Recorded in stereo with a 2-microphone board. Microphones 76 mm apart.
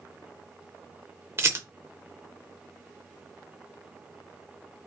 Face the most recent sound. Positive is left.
turn(degrees=-35)  # may be behind; listen again after turning